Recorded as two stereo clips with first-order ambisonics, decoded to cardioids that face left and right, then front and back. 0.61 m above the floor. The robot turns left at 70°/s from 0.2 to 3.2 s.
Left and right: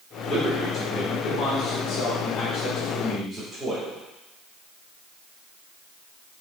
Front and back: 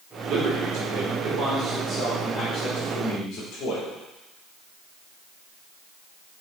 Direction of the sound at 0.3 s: 160° right.